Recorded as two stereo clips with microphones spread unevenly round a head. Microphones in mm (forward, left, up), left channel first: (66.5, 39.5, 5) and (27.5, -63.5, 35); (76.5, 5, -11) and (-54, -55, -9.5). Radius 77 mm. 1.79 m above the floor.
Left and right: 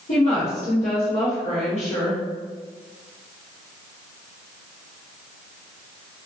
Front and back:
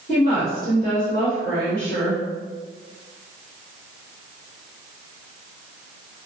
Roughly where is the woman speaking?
Ahead left.